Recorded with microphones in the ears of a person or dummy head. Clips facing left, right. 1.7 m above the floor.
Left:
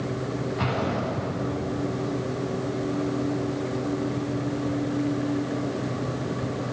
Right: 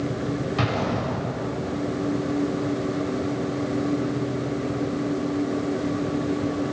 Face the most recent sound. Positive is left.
turn(degrees=-85)